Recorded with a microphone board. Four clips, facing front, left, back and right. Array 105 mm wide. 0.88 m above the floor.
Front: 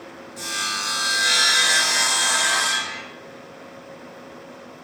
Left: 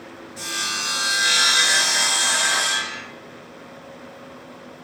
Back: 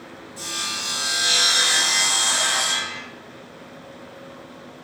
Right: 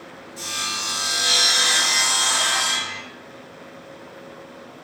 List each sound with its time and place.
0.4 s sawing: 55° left, 4 m